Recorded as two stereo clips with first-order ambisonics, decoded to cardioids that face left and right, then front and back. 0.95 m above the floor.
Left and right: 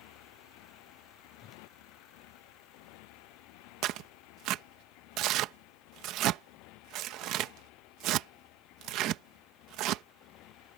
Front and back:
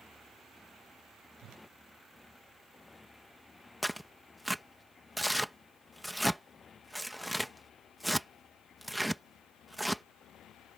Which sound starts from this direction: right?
Tearing paper, at 3.8 s.